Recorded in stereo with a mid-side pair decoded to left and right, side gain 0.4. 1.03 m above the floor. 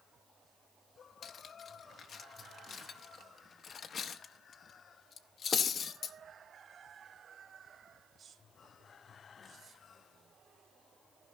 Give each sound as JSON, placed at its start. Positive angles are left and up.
{"t": 1.2, "sound": "cutlery clinking", "azimuth_deg": 60, "distance_m": 0.9}